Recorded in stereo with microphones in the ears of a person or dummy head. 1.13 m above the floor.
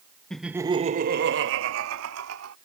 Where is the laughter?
5° left (ahead or behind); by 2.5 s 85° right.